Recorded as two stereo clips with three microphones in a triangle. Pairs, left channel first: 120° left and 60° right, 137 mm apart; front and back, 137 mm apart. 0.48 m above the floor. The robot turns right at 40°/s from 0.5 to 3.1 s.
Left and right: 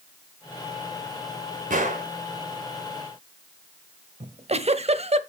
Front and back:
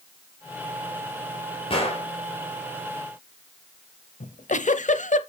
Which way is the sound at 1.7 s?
50° right.